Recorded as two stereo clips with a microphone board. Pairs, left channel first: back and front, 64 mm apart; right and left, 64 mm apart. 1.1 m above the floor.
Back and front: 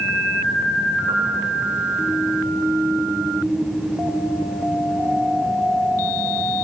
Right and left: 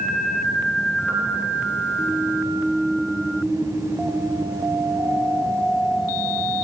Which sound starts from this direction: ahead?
A piano, at 1.1 s.